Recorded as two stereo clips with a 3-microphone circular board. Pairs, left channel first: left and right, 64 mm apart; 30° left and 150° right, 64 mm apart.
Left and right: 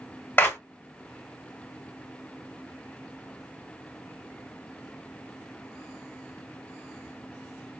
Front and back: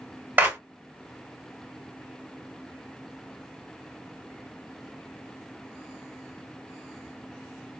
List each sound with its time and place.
0.4 s a clap: 150° left, 1.8 m